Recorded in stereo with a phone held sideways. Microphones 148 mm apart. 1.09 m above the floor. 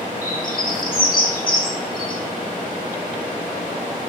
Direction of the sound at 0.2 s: 75° left (ahead or behind).